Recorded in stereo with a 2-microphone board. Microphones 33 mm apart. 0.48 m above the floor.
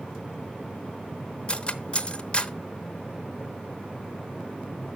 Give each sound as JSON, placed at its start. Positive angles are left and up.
{"t": 1.5, "sound": "cutlery clinking", "side_deg": 30, "distance_m": 0.6}